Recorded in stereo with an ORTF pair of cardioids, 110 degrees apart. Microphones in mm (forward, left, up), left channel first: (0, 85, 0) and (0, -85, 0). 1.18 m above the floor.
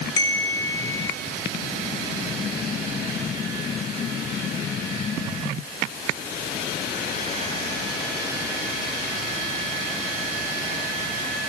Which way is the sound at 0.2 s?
20° left.